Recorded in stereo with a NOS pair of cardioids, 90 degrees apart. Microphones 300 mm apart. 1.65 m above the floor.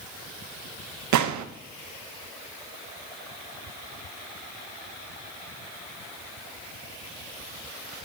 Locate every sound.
1.1 s a gunshot: 70° right, 1.1 m